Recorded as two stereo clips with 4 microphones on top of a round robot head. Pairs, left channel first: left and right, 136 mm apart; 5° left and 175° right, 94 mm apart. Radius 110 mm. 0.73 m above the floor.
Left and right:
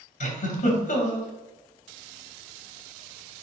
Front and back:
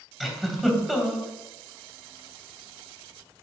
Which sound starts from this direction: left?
A giggle, at 0.2 s.